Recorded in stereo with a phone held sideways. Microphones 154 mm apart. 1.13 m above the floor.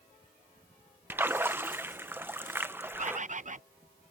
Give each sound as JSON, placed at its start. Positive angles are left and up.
{"t": 1.1, "sound": "a splash", "side_deg": -15}
{"t": 3.0, "sound": "a bird", "side_deg": -50}